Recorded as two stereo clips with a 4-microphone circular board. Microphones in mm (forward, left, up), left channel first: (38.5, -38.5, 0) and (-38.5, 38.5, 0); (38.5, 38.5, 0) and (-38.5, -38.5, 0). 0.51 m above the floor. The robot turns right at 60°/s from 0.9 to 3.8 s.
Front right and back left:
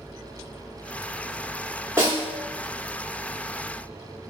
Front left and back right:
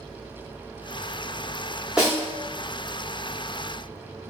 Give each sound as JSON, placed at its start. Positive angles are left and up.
{"t": 2.0, "sound": "a snare drum", "azimuth_deg": 155, "distance_m": 0.9}